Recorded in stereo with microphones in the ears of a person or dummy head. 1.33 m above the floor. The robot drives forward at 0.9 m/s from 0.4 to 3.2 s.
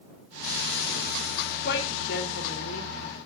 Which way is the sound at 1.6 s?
65° left (ahead or behind).